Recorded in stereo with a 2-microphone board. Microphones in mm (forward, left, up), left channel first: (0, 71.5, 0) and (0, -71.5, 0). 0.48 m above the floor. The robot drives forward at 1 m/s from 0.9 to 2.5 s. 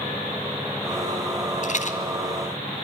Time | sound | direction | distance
1.6 | a rattle | 65° left (ahead or behind) | 2.5 m